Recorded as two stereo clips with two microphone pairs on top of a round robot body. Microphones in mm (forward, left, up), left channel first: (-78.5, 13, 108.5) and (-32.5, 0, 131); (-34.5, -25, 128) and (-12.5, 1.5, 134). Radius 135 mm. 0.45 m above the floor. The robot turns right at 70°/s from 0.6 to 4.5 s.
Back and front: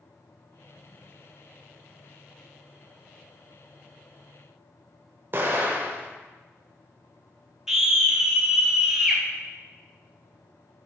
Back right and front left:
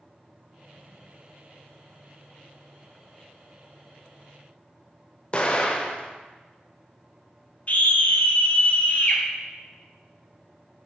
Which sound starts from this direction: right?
A scream, at 7.7 s.